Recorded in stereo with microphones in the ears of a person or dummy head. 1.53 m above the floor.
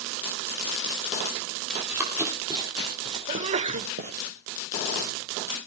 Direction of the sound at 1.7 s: Centre (ahead or behind).